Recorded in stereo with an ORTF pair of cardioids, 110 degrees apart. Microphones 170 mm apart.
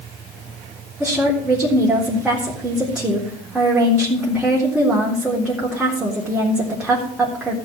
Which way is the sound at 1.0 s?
5° right.